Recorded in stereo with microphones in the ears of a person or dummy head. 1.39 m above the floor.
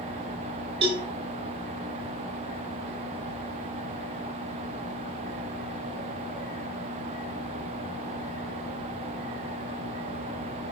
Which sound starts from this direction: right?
A cowbell, at 0.8 s.